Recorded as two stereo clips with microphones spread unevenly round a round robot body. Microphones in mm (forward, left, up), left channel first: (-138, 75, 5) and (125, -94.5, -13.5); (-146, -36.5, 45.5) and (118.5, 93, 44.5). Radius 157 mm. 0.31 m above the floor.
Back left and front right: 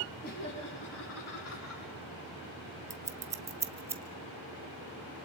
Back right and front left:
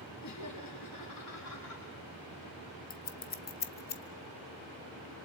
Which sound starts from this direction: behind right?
Laughter, at 0.2 s.